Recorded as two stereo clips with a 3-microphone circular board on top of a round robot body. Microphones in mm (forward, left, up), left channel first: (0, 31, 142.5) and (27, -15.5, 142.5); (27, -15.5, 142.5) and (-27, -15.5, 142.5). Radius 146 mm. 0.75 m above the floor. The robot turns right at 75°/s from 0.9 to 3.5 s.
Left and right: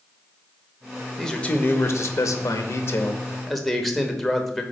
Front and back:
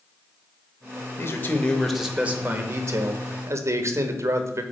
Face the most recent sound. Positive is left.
turn(degrees=-155)